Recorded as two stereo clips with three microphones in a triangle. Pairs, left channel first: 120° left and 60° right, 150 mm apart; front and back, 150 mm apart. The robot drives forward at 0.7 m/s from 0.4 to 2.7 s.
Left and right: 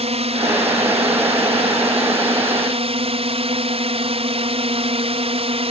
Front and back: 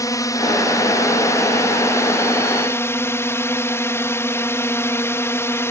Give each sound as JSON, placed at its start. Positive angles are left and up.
{"t": 0.0, "sound": "a drone", "azimuth_deg": -55}